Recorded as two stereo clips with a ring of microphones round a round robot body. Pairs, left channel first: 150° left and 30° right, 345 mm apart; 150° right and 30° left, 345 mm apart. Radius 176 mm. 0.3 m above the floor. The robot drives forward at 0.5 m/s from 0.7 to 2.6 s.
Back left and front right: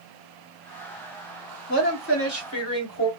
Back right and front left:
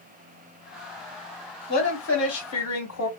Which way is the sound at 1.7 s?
Straight behind.